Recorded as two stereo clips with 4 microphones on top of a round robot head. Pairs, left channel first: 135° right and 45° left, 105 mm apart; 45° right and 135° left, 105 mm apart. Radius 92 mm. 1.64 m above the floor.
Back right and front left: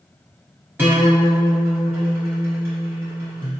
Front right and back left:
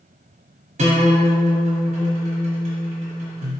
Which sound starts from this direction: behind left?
A guitar, at 0.8 s.